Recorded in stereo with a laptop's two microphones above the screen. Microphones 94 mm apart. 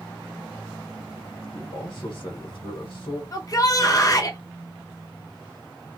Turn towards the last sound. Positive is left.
turn(degrees=40)  # may be behind; listen again after turning